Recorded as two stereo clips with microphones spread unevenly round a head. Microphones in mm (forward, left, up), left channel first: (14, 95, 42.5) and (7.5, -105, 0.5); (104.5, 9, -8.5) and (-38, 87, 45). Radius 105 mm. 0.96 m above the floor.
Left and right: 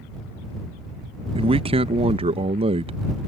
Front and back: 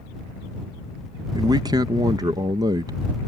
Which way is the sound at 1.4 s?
130° right.